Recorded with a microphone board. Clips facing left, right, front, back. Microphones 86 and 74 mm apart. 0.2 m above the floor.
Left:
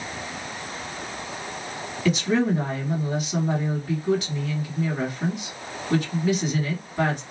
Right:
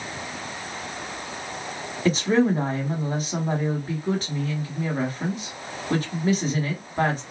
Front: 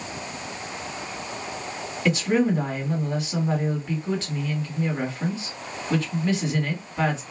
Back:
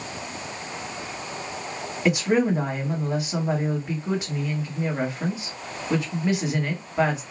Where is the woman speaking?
115° right, 1.2 m.